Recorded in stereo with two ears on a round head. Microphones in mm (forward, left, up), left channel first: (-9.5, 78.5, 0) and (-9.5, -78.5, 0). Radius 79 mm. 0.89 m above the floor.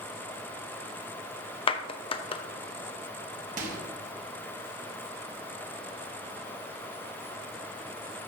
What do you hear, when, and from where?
1.7 s a clap: 30° left (ahead or behind), 0.7 m
3.6 s a microwave: 45° right (ahead or behind), 1.4 m